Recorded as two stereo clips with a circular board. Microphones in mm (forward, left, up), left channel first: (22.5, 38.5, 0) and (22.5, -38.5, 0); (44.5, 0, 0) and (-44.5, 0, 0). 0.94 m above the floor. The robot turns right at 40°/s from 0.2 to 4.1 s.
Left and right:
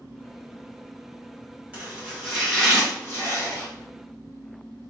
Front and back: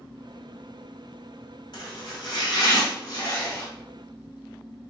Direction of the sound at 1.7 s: 20° right.